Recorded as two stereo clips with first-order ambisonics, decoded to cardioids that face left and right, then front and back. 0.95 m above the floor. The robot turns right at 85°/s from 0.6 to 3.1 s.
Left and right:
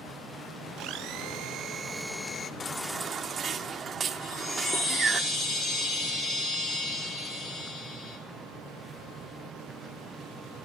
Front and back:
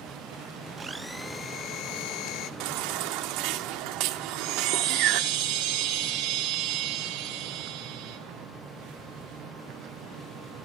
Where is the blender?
115° right, 0.6 m; by 2.5 s 30° left, 0.6 m.